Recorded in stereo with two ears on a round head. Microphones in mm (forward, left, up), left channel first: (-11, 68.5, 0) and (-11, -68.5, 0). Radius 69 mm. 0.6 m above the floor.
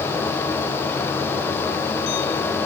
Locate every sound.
Only background noise.